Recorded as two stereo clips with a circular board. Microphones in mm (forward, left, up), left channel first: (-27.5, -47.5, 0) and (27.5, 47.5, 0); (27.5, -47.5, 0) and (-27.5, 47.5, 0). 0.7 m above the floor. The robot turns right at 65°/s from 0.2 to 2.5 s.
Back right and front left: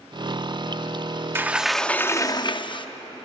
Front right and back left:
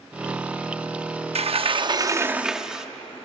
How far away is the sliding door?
About 0.7 m.